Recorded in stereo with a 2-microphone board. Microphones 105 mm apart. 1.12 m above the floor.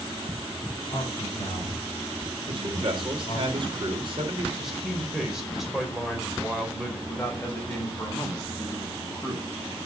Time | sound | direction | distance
0.9 | a man speaking | 55° left (ahead or behind) | 4 m
2.5 | a man speaking | 50° right (ahead or behind) | 3.5 m
4.6 | a man speaking | 5° right (ahead or behind) | 4 m
7.1 | a man speaking | 15° left (ahead or behind) | 5.5 m